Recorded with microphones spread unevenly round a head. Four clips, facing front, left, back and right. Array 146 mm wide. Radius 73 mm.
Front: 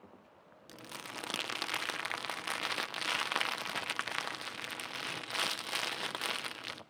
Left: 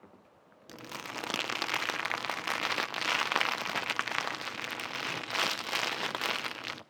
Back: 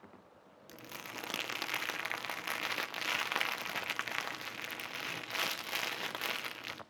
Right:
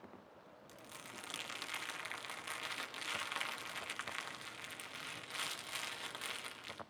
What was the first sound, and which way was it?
Crumpling, 85° left.